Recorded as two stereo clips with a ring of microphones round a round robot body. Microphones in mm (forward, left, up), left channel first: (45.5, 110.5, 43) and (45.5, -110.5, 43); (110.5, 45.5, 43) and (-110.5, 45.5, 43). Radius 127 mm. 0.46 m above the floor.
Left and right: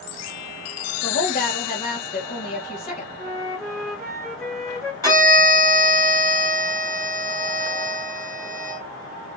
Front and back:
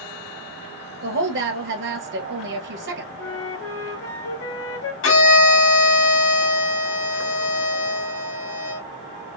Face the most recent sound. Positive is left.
turn(degrees=-20)